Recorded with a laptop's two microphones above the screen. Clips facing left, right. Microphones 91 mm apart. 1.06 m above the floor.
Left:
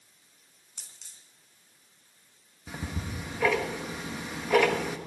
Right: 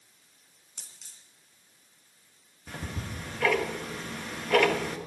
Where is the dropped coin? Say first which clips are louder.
Right 1 dB; 5° right (ahead or behind), 3 m.